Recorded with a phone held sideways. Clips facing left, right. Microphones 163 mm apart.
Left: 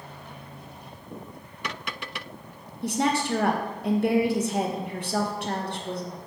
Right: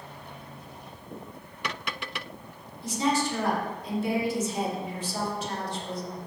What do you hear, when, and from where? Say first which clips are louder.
2.8 s a woman speaking: left 1 dB; 65° left (ahead or behind), 0.6 m